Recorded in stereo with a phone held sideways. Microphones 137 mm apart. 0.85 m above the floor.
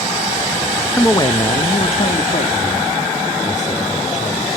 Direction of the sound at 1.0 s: 10° left (ahead or behind).